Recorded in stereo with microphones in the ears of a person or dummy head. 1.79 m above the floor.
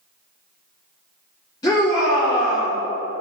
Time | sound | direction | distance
1.6 | a shout | 25° left (ahead or behind) | 4.5 m